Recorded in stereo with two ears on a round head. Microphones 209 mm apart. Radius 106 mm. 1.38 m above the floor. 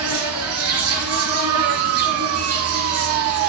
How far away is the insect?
About 8 m.